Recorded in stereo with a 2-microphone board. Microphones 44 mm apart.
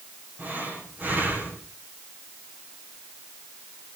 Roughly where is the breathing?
Right.